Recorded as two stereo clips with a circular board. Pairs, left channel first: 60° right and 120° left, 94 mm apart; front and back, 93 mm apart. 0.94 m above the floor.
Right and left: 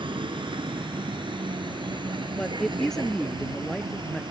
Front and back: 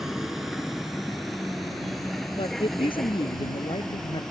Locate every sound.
0.0 s a vehicle: 95° left; by 4.3 s 85° left
2.4 s a man speaking: 25° left